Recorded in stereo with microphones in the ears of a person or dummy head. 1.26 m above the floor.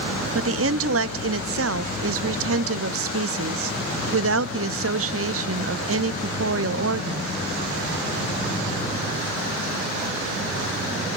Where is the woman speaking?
65° right (ahead or behind), 0.9 m.